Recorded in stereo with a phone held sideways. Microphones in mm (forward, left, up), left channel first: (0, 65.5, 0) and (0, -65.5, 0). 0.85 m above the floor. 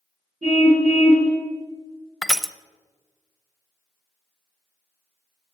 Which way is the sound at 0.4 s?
55° right (ahead or behind).